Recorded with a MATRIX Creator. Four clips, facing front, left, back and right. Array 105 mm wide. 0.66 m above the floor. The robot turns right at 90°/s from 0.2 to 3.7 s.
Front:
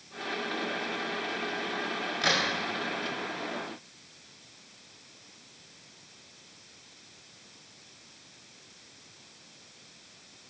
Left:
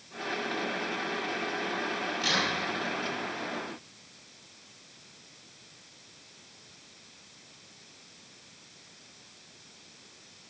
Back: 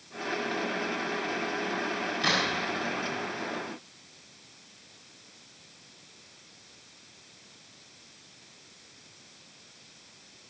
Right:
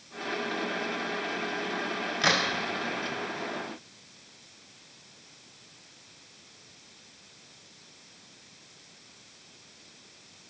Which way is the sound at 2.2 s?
75° right.